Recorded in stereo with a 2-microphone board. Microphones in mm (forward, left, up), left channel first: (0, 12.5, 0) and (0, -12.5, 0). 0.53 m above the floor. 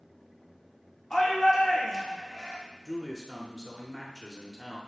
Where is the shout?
25° left (ahead or behind), 1.2 m.